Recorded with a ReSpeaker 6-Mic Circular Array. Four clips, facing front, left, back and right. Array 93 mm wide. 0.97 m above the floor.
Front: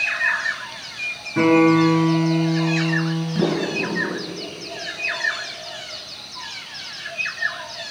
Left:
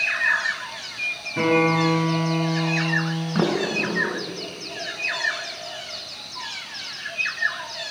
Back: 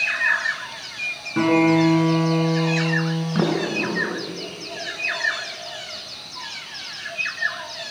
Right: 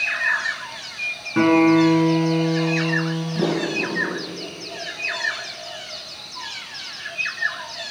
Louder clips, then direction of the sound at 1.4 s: Right 5 dB, front 2 dB; 110° right.